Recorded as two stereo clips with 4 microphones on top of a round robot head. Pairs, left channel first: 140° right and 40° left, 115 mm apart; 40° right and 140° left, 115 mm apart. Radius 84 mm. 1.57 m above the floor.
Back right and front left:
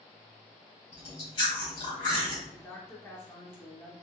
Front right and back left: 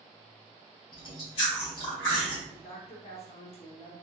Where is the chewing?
95° right, 2 m.